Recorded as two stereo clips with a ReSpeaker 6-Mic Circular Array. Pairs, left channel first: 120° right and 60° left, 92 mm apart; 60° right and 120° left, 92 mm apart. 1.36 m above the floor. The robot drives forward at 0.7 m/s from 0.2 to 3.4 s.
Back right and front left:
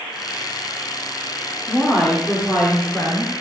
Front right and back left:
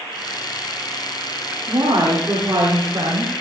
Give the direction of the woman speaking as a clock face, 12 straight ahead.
7 o'clock.